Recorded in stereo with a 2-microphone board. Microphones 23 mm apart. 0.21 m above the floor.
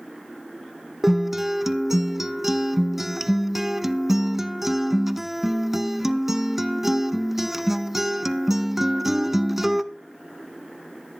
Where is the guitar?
10° right (ahead or behind), 0.7 m.